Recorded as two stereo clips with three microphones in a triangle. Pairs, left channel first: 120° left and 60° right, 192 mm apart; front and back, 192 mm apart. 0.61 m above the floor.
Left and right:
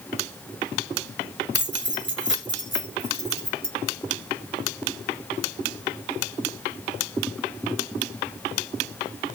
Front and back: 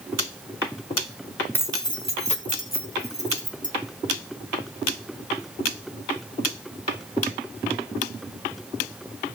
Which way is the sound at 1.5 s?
80° right.